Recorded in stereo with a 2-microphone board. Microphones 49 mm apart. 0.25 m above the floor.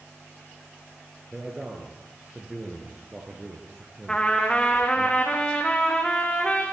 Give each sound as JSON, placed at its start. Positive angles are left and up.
{"t": 1.3, "sound": "a man speaking", "side_deg": -10, "distance_m": 4.0}
{"t": 4.1, "sound": "a trumpet", "side_deg": 15, "distance_m": 4.5}